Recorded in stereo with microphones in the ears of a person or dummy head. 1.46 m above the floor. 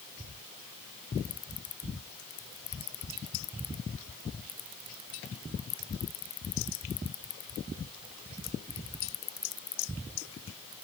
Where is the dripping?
I don't hear dripping.